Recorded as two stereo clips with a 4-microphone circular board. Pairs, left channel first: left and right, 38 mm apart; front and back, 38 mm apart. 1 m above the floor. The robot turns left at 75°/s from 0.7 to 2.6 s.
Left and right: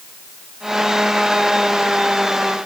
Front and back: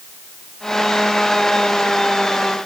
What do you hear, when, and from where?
Only background noise.